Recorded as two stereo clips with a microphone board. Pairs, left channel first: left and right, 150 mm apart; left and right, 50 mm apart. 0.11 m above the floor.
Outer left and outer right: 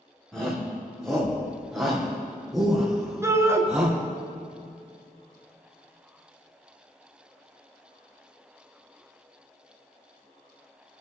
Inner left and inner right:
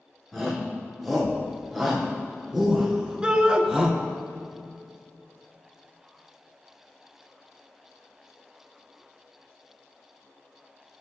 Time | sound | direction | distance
0.3 | a shout | 5° left (ahead or behind) | 5 m
3.2 | a shout | 20° right (ahead or behind) | 1.5 m